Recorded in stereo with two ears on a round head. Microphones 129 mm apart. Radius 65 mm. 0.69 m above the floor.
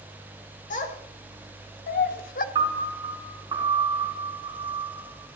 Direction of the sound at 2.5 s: 30° right (ahead or behind).